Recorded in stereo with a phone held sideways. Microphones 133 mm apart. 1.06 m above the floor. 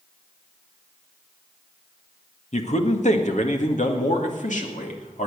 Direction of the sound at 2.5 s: 60° left (ahead or behind).